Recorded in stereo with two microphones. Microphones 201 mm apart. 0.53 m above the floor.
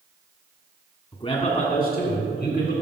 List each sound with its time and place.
1.1 s a man speaking: 20° left (ahead or behind), 1.4 m; by 2.7 s 65° left (ahead or behind), 3 m